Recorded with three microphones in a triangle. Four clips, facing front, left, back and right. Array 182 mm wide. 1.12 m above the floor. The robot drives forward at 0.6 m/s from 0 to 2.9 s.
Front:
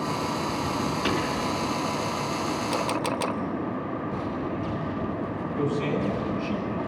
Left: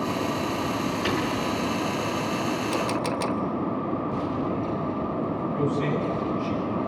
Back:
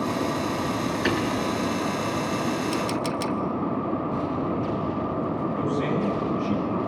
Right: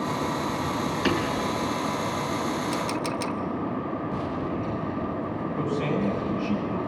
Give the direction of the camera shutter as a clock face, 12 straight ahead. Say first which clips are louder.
Left 2 dB, back 1 dB; 11 o'clock.